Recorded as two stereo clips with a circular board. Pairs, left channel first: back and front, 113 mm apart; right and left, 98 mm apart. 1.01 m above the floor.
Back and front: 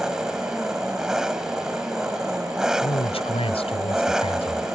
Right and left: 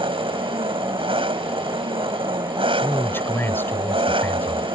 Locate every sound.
0.0 s an engine running: 85° left
2.8 s a man speaking: 155° right